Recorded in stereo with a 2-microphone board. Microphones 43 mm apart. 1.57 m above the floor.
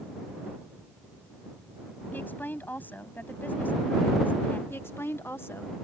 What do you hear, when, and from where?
2.1 s a woman speaking: 50° left (ahead or behind)
4.7 s a woman speaking: 85° left